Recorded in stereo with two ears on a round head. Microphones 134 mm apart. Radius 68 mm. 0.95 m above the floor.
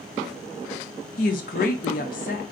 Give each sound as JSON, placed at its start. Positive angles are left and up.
{"t": 1.2, "sound": "a woman speaking", "side_deg": 55, "distance_m": 0.9}